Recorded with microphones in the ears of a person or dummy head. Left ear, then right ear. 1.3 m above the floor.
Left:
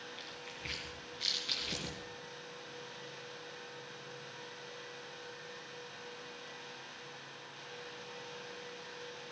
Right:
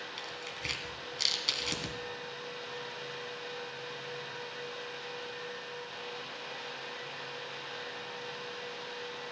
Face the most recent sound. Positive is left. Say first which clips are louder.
# right 6 dB
turn(degrees=-70)  # may be behind; listen again after turning